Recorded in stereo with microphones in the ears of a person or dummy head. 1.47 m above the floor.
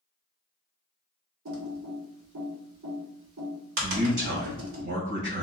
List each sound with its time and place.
1.4 s typing on a keyboard: 75° right (ahead or behind), 1.3 m
3.8 s a man speaking: 60° right (ahead or behind), 1.9 m